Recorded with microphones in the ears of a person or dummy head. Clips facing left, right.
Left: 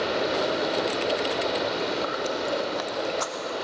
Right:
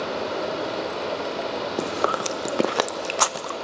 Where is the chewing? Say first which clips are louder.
Right 2 dB; 70° right (ahead or behind), 0.8 m.